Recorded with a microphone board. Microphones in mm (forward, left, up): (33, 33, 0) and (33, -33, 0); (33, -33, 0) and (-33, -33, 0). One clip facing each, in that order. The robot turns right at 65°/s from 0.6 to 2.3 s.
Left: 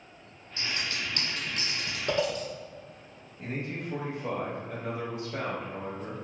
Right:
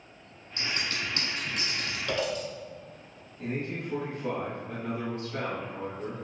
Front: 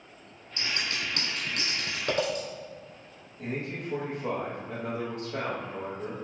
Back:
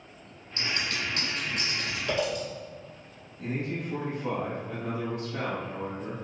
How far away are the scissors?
About 1.6 m.